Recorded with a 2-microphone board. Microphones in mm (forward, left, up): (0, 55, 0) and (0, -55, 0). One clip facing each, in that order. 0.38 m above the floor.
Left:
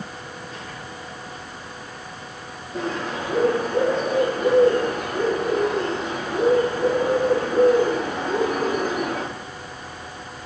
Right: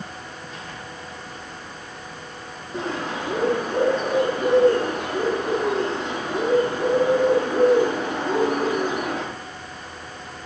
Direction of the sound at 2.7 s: 75° right (ahead or behind).